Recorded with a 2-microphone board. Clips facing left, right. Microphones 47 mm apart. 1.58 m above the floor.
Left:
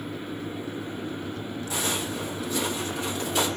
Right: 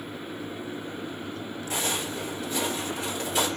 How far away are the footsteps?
About 2.0 m.